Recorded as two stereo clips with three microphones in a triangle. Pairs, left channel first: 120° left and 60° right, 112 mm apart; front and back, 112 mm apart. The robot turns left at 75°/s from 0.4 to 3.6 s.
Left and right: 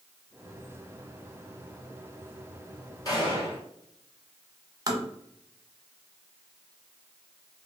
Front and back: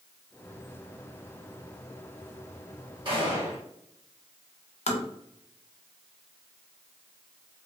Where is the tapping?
5° right, 0.6 m.